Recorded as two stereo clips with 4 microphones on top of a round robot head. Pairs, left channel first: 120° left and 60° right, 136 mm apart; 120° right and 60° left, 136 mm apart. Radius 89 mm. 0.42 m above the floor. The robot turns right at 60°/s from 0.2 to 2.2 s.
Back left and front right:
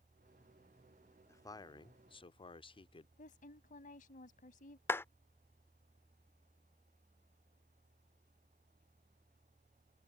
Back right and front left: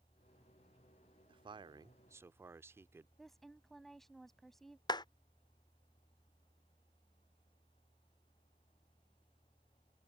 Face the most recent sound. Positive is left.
turn(degrees=-170)